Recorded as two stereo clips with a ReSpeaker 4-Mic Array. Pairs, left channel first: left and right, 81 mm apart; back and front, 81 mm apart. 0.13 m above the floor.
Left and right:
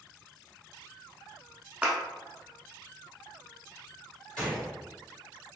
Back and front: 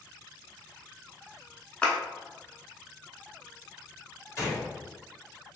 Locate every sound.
1.8 s a clap: 130° right, 0.8 m
4.4 s a gunshot: 160° left, 1.9 m